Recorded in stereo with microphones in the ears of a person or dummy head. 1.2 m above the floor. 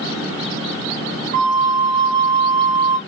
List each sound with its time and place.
1.3 s a flute: 40° right (ahead or behind), 1.3 m